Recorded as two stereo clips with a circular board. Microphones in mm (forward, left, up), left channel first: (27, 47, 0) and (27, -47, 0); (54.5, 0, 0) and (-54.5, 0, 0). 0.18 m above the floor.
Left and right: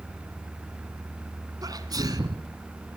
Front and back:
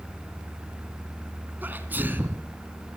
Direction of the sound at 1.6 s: 110° right.